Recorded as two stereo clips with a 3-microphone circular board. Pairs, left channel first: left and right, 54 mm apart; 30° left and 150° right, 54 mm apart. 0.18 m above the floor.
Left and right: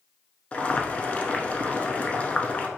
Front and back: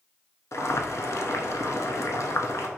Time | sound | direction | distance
0.5 | boiling | 30° left | 0.6 m